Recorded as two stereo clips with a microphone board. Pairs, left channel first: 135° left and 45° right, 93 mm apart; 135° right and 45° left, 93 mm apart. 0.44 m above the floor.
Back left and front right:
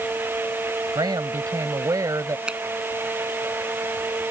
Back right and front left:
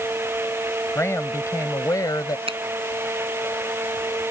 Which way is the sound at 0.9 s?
75° right.